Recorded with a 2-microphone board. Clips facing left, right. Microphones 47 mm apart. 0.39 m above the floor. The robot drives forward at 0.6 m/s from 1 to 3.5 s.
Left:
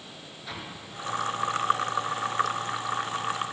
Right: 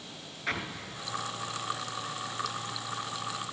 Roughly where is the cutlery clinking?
I don't hear cutlery clinking.